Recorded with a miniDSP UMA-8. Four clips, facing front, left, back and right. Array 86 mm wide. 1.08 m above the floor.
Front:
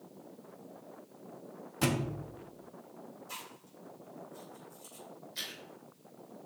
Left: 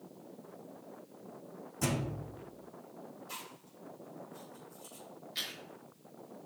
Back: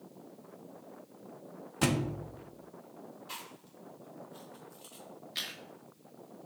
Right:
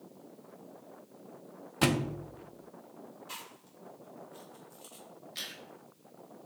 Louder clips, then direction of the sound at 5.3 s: Left 2 dB, back 3 dB; 170° left.